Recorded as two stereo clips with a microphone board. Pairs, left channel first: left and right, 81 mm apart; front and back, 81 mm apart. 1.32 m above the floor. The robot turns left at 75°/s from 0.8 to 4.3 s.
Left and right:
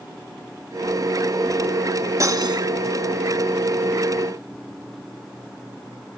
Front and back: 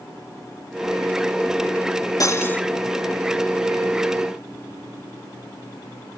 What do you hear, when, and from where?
2.2 s cutlery clinking: 40° right, 1.3 m; by 2.6 s 75° right, 1.3 m